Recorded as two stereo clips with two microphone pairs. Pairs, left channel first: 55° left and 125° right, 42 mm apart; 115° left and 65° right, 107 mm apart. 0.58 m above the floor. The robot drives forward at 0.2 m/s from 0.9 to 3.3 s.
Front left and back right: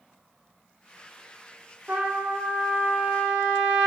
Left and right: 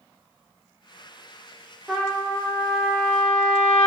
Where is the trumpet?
155° right, 0.6 m; by 3.9 s 165° right, 0.8 m.